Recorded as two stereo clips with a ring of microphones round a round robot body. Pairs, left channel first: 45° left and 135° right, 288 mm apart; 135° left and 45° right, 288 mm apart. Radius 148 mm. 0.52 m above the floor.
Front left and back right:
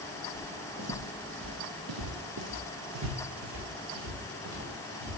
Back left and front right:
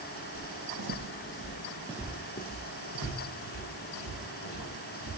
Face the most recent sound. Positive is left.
turn(degrees=160)